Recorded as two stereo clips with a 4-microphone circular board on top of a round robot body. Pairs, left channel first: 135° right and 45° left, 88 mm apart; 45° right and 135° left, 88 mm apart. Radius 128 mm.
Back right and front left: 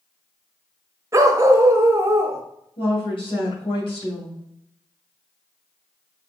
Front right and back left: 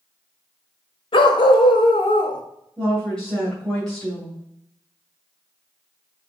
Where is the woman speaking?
125° right, 2.5 m.